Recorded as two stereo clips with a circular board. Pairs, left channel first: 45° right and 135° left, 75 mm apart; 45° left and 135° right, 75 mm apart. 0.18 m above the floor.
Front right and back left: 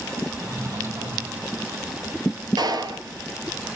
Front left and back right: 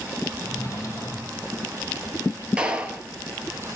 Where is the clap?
150° left, 3 m.